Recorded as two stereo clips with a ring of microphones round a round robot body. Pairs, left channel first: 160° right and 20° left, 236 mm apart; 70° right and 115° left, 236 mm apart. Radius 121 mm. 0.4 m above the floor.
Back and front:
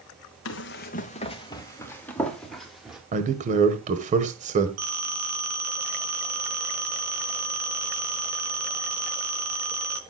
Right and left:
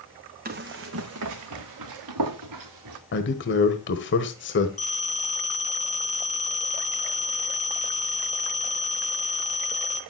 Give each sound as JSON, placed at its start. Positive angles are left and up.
{"t": 0.5, "sound": "running footsteps", "azimuth_deg": 165, "distance_m": 1.2}
{"t": 3.1, "sound": "a man speaking", "azimuth_deg": -35, "distance_m": 1.5}
{"t": 4.8, "sound": "a phone ringing", "azimuth_deg": -5, "distance_m": 3.5}